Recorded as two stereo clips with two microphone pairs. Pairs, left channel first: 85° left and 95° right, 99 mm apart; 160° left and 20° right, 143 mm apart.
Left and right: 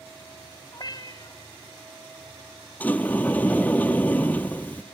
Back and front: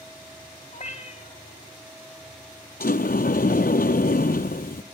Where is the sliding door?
160° left, 0.6 m.